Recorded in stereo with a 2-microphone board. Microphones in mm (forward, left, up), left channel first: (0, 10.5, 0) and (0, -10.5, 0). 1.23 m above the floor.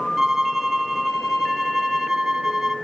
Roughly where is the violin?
Centre.